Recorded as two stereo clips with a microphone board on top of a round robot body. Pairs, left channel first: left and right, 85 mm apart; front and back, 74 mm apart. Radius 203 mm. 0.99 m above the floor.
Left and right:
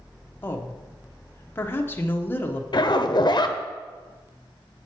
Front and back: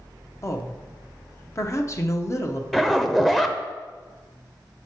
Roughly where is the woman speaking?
Ahead left.